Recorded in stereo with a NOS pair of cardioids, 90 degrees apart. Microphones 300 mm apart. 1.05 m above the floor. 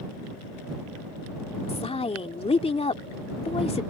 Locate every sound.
1.7 s a woman speaking: 20° left